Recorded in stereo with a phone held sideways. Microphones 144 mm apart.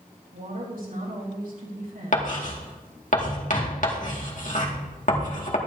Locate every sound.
0.3 s a woman speaking: 80° right, 3.5 m
2.1 s writing: 65° left (ahead or behind), 2 m